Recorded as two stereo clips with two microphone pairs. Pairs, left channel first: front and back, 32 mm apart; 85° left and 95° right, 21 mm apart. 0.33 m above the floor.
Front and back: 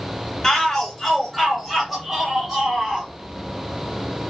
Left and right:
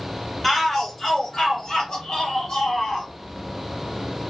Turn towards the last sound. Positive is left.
turn(degrees=110)